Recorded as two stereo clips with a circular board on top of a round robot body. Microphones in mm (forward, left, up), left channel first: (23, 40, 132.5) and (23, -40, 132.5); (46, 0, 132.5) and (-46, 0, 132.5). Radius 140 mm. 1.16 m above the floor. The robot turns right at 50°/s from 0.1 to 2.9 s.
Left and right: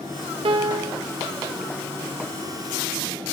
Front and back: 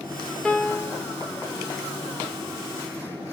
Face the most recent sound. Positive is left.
turn(degrees=40)